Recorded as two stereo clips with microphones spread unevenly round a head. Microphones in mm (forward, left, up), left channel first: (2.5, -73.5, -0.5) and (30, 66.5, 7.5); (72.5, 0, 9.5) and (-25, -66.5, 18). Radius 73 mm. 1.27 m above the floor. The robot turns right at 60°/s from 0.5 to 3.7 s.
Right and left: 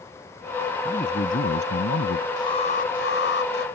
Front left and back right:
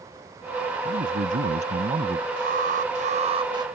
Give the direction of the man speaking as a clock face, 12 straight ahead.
6 o'clock.